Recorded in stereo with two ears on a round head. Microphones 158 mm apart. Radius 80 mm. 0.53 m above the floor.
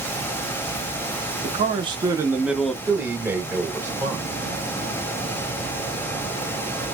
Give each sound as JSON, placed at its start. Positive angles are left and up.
{"t": 1.4, "sound": "a man speaking", "side_deg": -35, "distance_m": 0.8}
{"t": 2.9, "sound": "a man speaking", "side_deg": -10, "distance_m": 1.8}